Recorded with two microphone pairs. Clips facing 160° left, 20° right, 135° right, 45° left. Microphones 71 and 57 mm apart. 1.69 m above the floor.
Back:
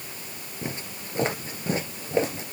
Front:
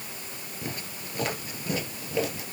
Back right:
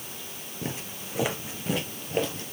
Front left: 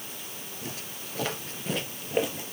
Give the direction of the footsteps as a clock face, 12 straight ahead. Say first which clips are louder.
Back 3 dB, back right 6 dB; 5 o'clock.